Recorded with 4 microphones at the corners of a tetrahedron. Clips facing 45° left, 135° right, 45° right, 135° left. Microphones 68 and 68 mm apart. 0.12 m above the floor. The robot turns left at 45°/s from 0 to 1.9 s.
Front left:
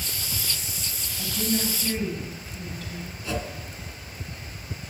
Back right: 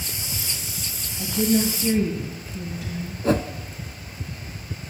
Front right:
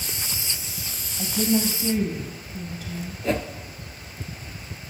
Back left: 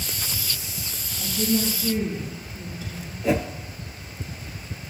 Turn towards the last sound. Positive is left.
turn(degrees=-140)